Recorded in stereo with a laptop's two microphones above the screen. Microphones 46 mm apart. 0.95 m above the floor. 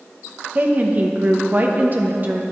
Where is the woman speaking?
40° right (ahead or behind), 0.9 m.